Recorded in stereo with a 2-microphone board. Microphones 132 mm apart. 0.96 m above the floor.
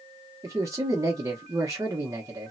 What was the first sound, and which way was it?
A man speaking, 20° right (ahead or behind).